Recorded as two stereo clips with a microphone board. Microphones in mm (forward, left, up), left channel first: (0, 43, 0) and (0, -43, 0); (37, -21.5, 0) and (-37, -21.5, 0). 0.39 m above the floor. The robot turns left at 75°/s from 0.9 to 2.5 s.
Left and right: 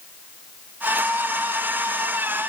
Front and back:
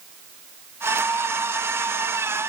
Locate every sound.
Only background noise.